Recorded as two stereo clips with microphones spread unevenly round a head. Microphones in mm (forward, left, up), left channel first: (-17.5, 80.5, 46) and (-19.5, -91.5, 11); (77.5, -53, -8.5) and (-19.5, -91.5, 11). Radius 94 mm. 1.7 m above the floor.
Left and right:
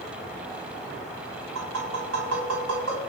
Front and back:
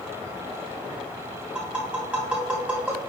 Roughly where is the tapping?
Right.